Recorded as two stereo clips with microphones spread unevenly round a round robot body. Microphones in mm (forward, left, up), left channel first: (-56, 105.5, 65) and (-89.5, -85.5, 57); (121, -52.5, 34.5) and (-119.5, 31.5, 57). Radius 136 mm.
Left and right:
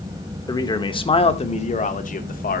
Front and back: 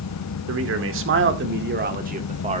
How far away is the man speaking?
About 1.8 m.